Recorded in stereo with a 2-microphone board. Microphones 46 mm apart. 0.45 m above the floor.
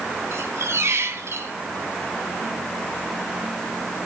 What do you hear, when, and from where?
0.3 s a squeak: 75° right (ahead or behind), 2.5 m